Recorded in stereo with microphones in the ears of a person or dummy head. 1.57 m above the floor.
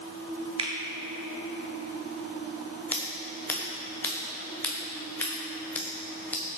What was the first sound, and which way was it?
A finger snap, 25° right (ahead or behind).